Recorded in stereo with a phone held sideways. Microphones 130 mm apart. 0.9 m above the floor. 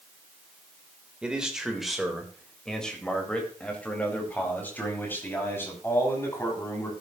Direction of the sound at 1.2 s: 10° right (ahead or behind).